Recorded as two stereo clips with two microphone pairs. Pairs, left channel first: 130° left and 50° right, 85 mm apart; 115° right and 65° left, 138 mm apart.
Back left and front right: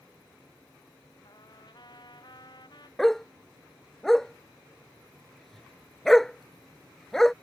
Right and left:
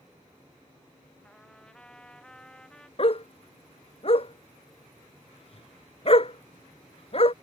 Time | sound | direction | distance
1.2 | a trumpet | 160° left | ?
3.0 | a dog barking | 145° right | ?